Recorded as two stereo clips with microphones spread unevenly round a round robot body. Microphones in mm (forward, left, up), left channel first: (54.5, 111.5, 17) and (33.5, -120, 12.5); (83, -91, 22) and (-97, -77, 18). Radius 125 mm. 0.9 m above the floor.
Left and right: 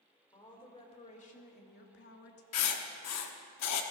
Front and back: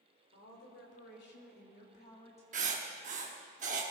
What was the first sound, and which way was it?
A woman speaking, 15° left.